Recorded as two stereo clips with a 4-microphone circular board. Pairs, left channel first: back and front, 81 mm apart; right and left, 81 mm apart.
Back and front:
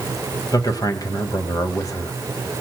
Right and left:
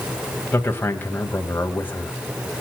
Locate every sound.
0.5 s a man speaking: 150° right, 1.7 m